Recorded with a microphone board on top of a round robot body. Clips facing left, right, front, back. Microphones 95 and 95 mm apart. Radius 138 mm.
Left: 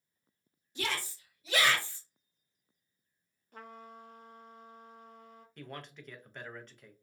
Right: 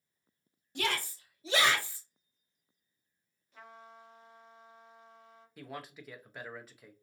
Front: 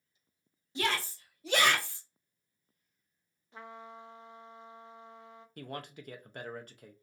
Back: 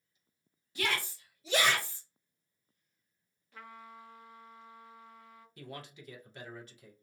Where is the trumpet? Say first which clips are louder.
Left 3 dB, front 3 dB; 65° left, 0.6 m.